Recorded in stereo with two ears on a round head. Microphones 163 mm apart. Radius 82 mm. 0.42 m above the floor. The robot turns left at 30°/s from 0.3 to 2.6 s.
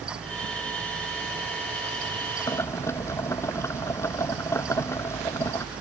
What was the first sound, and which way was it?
Boiling, 20° left (ahead or behind).